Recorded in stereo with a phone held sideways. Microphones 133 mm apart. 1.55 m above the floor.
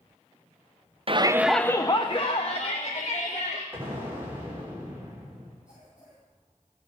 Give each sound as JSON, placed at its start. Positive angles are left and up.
{"t": 1.1, "sound": "a shout", "side_deg": -45, "distance_m": 0.6}
{"t": 3.7, "sound": "an explosion", "side_deg": -15, "distance_m": 3.5}
{"t": 5.7, "sound": "a cough", "side_deg": -10, "distance_m": 8.5}